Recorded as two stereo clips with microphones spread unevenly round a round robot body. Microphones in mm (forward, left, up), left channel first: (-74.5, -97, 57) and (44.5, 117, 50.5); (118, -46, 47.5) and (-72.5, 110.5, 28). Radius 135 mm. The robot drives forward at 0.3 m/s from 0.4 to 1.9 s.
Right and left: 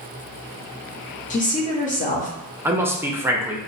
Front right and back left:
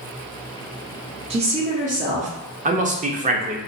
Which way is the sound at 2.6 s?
135° left.